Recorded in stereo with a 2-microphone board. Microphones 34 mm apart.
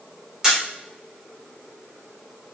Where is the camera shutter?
10° right (ahead or behind), 0.9 m.